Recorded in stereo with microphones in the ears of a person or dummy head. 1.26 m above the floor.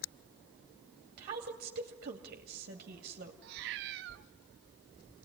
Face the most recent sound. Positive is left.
turn(degrees=-55)  # may be behind; listen again after turning